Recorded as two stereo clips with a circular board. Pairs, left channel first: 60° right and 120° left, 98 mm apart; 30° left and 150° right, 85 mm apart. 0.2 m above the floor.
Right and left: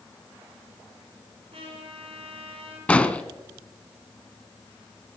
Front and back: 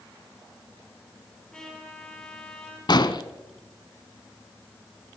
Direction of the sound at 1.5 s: 115° left.